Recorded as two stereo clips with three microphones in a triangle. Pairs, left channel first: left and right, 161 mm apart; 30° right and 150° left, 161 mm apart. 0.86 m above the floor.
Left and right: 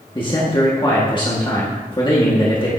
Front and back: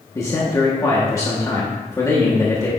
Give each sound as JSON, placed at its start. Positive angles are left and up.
{"t": 0.1, "sound": "a man speaking", "azimuth_deg": 35, "distance_m": 1.9}